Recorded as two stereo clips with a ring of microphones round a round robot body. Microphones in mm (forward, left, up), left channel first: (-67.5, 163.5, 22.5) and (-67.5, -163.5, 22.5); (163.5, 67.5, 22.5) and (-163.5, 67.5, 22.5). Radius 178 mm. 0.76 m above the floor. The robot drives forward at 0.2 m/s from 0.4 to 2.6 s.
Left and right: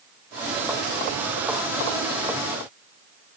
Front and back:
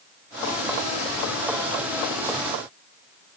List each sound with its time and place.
Only background noise.